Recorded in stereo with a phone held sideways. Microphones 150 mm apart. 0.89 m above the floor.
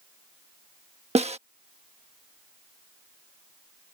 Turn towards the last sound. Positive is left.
turn(degrees=-50)  # may be behind; listen again after turning